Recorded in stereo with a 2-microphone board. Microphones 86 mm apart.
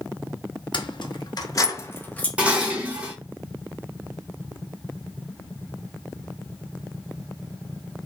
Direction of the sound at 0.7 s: 65° left (ahead or behind).